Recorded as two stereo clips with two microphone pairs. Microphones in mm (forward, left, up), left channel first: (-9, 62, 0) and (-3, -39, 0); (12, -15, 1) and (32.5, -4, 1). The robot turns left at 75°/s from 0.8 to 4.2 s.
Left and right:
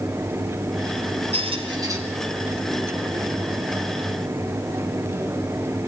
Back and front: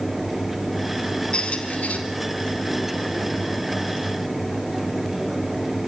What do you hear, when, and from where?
1.3 s a squeak: 100° right, 4.5 m; by 2.0 s 150° right, 4.5 m